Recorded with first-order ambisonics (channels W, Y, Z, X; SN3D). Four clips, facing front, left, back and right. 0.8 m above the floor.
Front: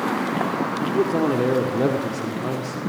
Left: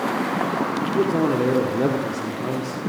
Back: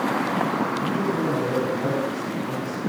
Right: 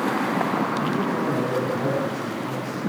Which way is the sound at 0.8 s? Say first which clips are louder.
Left 3 dB, front 3 dB; 40° left.